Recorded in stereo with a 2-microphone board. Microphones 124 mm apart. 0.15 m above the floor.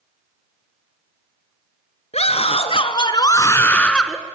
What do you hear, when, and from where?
2.1 s a scream: 60° left (ahead or behind), 2 m; by 4.2 s centre (ahead or behind), 1.6 m